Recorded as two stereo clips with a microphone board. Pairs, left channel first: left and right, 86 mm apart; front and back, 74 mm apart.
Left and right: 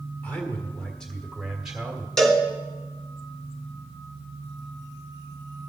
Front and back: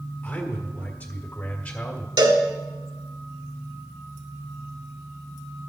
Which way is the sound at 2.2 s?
175° left.